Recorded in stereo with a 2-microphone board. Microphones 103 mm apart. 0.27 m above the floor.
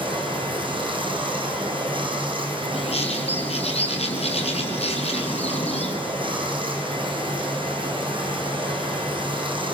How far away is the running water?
About 3.5 m.